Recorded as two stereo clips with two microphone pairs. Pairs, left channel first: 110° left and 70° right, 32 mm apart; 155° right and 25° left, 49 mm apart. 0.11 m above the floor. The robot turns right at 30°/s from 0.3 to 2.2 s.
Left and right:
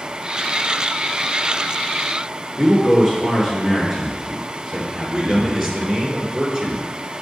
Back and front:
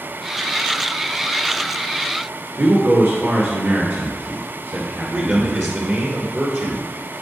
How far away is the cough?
No cough in this recording.